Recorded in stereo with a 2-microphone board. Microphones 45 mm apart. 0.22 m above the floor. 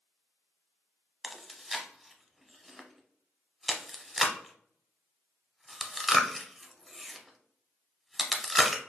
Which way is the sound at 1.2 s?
Centre (ahead or behind).